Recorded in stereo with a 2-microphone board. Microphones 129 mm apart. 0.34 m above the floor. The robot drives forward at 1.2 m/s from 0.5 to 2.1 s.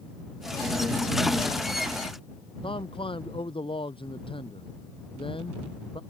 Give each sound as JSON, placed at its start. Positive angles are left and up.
{"t": 2.6, "sound": "a man speaking", "side_deg": 45}